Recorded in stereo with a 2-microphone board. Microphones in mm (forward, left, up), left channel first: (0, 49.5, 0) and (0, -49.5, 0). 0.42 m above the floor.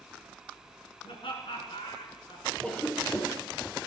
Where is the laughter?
70° left (ahead or behind), 5 m; by 2.5 s 65° left (ahead or behind), 5.5 m.